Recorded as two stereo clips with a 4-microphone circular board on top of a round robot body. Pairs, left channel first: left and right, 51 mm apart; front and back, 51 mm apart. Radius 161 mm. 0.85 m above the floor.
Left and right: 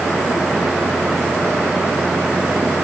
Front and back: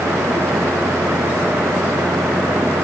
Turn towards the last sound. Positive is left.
No sound to turn to.